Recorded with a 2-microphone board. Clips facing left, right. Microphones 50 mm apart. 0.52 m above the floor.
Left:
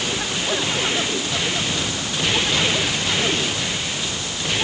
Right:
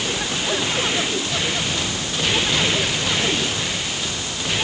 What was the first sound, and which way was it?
Only background noise.